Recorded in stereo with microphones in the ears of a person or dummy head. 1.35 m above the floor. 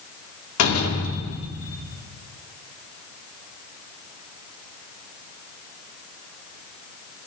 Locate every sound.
0.6 s a door slam: 85° left, 1.3 m